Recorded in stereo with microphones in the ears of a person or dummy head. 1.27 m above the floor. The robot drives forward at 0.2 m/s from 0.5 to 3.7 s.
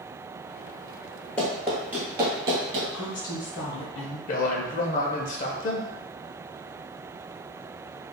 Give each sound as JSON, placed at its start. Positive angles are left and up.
{"t": 1.4, "sound": "running footsteps", "side_deg": 10, "distance_m": 1.3}
{"t": 2.9, "sound": "a woman speaking", "side_deg": 40, "distance_m": 0.7}
{"t": 4.3, "sound": "a man speaking", "side_deg": 40, "distance_m": 0.6}